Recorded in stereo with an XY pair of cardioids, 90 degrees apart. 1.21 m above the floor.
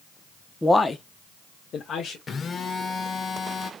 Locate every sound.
0.6 s a man speaking: 10° left, 0.7 m; by 2.2 s 70° left, 1.6 m
2.3 s a phone buzzing: 50° left, 1.2 m